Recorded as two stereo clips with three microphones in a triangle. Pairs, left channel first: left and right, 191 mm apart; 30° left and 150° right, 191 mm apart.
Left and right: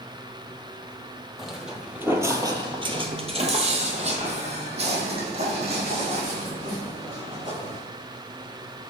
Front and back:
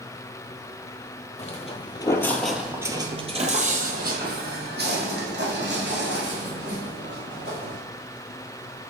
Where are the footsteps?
Straight ahead, 1.0 m; by 7.8 s 150° right, 3 m.